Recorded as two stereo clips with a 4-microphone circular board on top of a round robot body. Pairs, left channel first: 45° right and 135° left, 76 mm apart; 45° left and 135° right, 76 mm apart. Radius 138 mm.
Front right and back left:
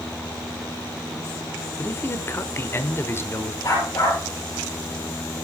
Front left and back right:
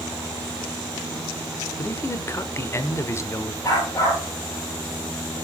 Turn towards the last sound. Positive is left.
turn(degrees=-5)